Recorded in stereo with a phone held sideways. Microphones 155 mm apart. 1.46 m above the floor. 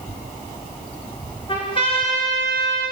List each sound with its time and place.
1.5 s a trumpet: 35° left (ahead or behind), 5.5 m